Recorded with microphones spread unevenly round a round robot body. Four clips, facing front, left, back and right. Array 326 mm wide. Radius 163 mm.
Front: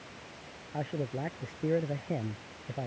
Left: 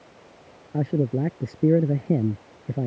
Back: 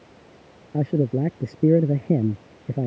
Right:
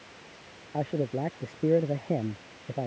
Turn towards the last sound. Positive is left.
turn(degrees=150)